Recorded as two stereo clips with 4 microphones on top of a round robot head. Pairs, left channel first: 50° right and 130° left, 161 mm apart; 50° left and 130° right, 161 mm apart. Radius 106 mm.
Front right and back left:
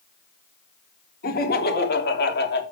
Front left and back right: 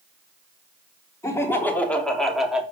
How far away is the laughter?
About 3 m.